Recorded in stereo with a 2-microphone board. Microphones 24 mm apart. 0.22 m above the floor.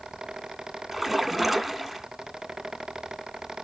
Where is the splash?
10° right (ahead or behind), 0.6 m.